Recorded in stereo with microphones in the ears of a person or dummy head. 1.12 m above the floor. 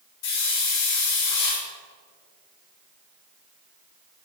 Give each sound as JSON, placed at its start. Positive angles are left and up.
{"t": 0.2, "sound": "a hiss", "side_deg": 70, "distance_m": 3.5}